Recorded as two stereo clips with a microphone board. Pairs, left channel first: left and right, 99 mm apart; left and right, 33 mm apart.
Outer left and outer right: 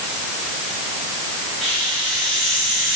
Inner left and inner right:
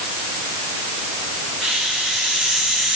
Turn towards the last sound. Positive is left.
turn(degrees=0)  # may be behind; listen again after turning